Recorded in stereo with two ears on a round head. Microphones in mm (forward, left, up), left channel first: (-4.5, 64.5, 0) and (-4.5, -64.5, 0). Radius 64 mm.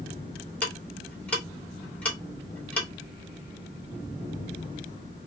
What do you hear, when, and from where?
0.6 s ticking: 10° left (ahead or behind), 2 m